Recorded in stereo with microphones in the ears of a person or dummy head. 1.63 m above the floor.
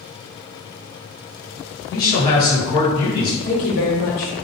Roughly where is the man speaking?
Left.